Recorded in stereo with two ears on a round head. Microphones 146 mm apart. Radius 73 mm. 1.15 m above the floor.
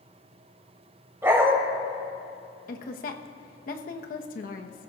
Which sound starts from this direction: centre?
A dog barking, at 1.2 s.